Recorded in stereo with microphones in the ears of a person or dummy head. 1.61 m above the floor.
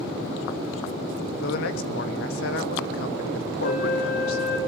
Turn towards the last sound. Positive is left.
turn(degrees=45)  # may be behind; listen again after turning